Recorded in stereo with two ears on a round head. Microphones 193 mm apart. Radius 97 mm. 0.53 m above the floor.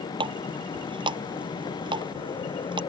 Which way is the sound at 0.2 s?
25° right (ahead or behind).